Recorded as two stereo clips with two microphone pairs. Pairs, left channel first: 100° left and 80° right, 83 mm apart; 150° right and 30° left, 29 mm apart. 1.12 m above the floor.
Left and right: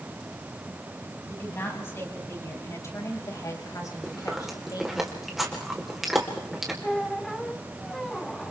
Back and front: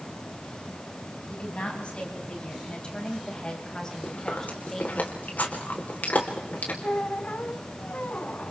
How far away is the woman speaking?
About 7 m.